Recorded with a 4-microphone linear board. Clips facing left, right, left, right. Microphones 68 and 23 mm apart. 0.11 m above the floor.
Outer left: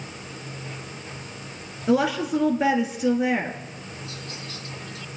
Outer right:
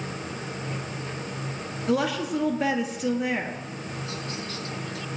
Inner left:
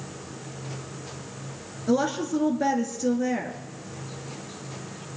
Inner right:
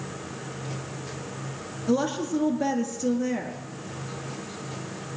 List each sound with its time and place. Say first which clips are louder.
1.9 s a woman speaking: outer left 4 dB, inner left 1 dB; 15° left (ahead or behind), 1.5 m